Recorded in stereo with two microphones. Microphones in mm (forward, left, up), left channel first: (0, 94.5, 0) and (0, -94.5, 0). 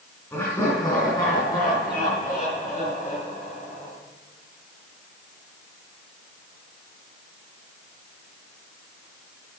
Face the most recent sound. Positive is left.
turn(degrees=35)  # may be behind; listen again after turning